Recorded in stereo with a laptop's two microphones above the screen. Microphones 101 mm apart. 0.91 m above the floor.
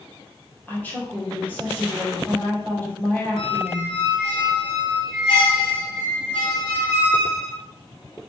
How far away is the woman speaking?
About 2.5 m.